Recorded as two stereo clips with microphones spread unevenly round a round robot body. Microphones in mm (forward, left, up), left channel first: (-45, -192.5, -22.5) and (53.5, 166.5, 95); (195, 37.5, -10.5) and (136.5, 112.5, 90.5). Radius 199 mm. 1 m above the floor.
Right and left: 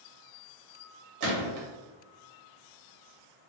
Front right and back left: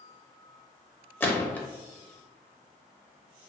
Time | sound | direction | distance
1.2 | a gunshot | 35° left | 0.8 m